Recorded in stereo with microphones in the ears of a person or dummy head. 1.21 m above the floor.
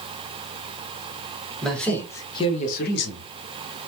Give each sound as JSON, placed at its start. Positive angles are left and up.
{"t": 1.6, "sound": "a man speaking", "side_deg": 0, "distance_m": 1.5}